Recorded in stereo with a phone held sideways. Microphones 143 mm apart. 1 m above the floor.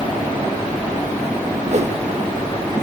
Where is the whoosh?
50° right (ahead or behind), 1.3 m.